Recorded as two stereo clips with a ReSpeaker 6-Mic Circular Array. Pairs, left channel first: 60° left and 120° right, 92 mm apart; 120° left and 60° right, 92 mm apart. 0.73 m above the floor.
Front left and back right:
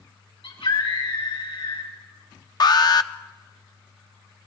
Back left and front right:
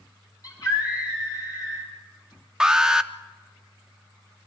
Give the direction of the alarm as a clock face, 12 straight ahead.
11 o'clock.